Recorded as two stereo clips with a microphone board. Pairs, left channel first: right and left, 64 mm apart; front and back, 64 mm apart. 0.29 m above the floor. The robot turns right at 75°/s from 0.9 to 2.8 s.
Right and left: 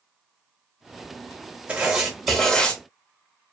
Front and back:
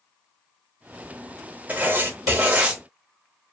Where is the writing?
145° left, 0.7 m; by 2.8 s 135° right, 0.7 m.